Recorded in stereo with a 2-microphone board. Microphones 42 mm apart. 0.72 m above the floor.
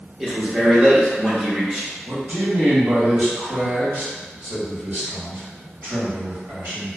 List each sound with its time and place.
0.2 s a man speaking: 5° right (ahead or behind), 0.7 m
2.0 s a man speaking: 60° right (ahead or behind), 1.2 m